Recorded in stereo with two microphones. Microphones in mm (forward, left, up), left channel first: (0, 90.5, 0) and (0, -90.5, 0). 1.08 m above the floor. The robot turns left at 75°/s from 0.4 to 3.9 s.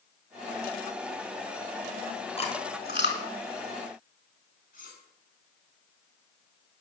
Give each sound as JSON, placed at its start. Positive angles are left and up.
{"t": 2.4, "sound": "chewing", "side_deg": 30, "distance_m": 4.0}
{"t": 4.7, "sound": "cutlery clinking", "side_deg": 55, "distance_m": 6.5}